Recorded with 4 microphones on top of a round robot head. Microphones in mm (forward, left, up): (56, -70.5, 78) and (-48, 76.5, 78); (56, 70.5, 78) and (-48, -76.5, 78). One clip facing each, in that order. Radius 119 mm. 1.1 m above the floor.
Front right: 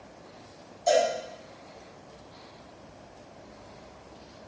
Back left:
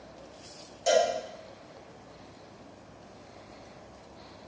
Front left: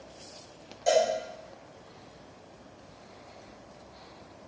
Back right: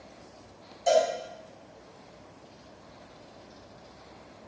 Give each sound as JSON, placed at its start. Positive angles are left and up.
{"t": 0.9, "sound": "a cowbell", "azimuth_deg": 135, "distance_m": 1.7}